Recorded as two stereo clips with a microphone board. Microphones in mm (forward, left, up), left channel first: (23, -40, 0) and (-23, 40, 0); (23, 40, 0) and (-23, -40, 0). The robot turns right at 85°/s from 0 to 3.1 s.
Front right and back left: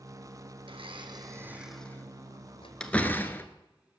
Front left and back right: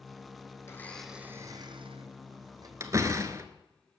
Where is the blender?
120° left, 1.0 m; by 2.7 s 70° right, 1.0 m.